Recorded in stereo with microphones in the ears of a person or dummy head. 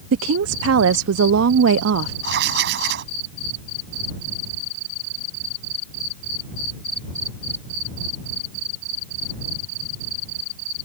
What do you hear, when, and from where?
0.1 s a woman speaking: 70° right (ahead or behind)
2.2 s writing: 60° right (ahead or behind)